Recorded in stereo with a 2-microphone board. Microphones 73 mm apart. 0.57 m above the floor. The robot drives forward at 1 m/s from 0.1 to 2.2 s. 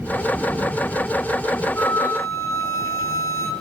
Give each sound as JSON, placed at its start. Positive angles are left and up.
{"t": 1.8, "sound": "a flute", "side_deg": 30, "distance_m": 1.5}